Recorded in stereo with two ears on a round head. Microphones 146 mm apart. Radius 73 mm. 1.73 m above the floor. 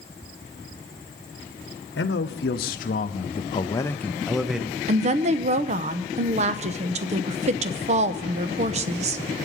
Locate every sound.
2.0 s a man speaking: 85° left, 1.0 m; by 4.8 s 10° right (ahead or behind), 1.0 m
4.9 s a woman speaking: 45° right (ahead or behind), 0.8 m